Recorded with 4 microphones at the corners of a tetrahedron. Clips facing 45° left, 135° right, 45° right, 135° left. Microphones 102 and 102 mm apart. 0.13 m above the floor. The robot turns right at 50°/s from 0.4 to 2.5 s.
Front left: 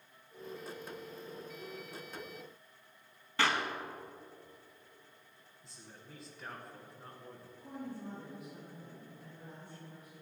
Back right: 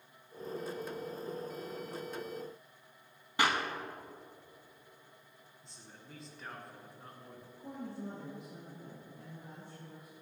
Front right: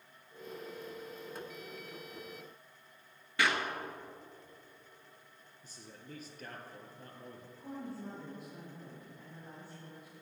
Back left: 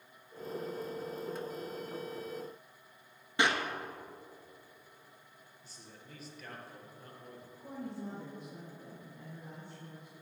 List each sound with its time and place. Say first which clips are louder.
3.4 s a clap: back right 1 dB, back left 1 dB; 170° left, 1.0 m
5.6 s a man speaking: front left 1 dB, front right 4 dB; 45° right, 1.7 m
7.6 s a woman speaking: back right 1 dB, back left 1 dB; 130° right, 4 m